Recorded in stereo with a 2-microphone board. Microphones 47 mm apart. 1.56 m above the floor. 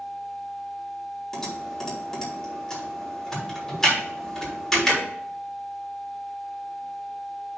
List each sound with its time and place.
1.3 s typing on a keyboard: 5° left (ahead or behind), 3.5 m